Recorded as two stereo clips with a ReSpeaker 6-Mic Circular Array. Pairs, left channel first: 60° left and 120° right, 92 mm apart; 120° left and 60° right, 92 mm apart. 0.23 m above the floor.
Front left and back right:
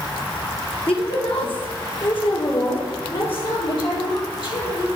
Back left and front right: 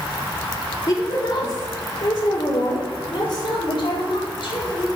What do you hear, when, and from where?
0.9 s a woman speaking: 70° left, 5.5 m; by 4.9 s 90° left, 8 m